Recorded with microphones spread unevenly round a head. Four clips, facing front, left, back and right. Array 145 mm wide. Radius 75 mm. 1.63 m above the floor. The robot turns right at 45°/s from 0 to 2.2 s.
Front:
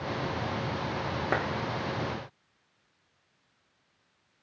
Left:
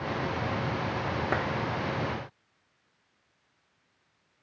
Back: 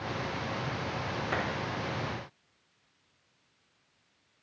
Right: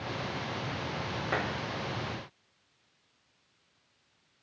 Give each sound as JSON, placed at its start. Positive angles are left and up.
{"t": 1.3, "sound": "a clap", "azimuth_deg": 40, "distance_m": 0.9}